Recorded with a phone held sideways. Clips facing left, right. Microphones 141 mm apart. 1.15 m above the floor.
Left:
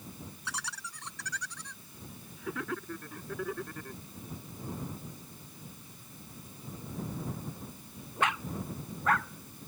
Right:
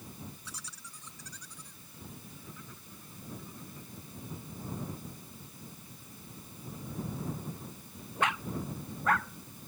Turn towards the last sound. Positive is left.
turn(degrees=85)